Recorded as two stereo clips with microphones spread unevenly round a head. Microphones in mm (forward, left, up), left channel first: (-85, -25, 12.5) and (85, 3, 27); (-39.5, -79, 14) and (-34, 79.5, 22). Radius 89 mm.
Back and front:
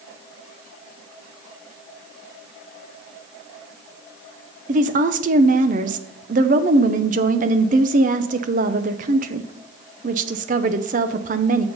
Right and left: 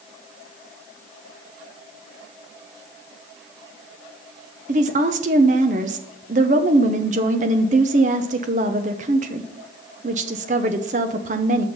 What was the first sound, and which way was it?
A woman speaking, 45° left.